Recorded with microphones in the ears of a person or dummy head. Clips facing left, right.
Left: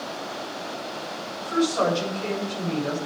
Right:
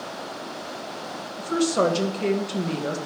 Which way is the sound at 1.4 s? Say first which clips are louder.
Right 1 dB; 45° right (ahead or behind).